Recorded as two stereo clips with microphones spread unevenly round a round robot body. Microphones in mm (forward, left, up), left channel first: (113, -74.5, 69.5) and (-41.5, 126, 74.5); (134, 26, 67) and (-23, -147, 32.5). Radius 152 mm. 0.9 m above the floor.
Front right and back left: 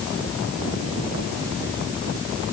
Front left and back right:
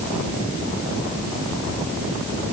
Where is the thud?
No thud in this recording.